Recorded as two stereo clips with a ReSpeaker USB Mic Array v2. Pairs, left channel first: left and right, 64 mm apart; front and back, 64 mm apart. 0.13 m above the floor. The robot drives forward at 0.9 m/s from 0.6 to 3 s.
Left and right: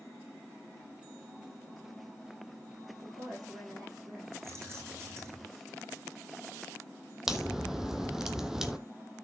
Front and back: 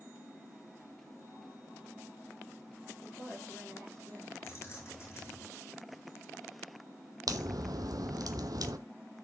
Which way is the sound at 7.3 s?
175° right.